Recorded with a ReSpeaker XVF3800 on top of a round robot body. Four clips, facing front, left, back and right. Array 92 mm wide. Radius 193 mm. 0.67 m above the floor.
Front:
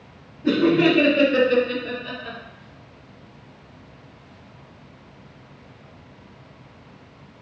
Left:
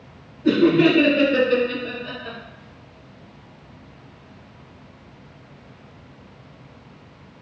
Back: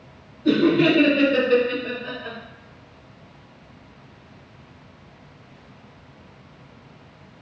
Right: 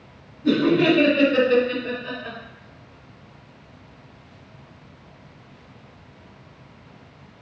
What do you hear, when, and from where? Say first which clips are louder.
0.4 s laughter: left 2 dB, even; 35° left, 1.4 m; by 2.4 s 145° right, 1.4 m